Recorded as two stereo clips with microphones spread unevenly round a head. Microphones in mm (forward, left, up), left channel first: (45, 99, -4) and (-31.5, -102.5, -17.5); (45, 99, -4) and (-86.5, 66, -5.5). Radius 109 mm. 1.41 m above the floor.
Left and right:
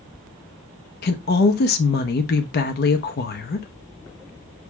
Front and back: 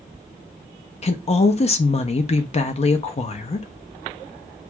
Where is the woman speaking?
40° left, 0.5 m.